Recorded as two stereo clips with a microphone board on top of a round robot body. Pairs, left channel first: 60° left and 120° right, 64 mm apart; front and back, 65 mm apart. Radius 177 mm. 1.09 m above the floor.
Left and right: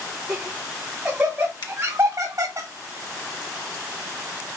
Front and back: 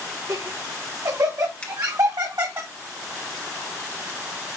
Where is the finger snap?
70° left, 1.0 m.